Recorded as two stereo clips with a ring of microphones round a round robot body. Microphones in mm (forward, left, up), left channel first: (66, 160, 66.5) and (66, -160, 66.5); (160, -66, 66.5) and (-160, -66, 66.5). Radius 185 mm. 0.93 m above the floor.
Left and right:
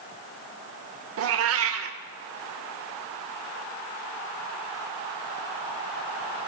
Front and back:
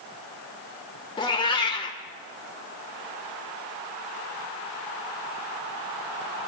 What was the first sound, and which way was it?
A cat meowing, 70° right.